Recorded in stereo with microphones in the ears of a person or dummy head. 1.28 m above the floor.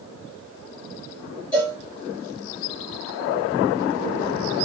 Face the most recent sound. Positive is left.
turn(degrees=5)  # may be behind; listen again after turning